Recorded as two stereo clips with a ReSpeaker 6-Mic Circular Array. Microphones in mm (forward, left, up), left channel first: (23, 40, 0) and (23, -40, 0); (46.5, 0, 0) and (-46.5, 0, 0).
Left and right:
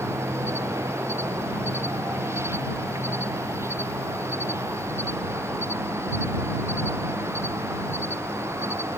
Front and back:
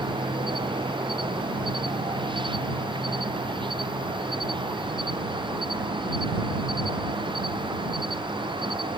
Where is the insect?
145° right.